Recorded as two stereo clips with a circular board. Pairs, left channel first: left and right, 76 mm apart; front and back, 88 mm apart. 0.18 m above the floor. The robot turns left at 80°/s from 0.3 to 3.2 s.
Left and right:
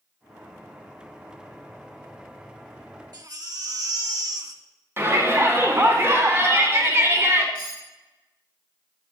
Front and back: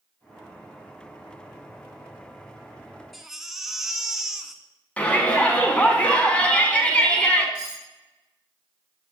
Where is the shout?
65° right, 1.3 m.